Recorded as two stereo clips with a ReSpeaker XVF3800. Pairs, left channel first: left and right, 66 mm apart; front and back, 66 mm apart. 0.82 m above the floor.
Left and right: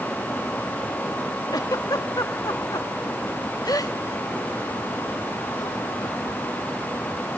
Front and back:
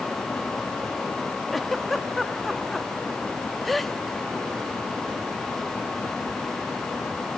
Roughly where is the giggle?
Left.